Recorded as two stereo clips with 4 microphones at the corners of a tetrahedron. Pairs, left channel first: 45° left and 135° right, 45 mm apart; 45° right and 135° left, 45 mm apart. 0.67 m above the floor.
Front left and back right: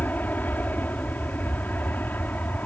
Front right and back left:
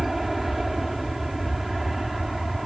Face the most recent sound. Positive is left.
turn(degrees=50)